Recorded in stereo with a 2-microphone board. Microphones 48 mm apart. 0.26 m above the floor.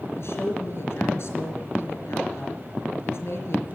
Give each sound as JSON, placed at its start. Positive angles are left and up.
{"t": 0.2, "sound": "a woman speaking", "side_deg": 60, "distance_m": 4.0}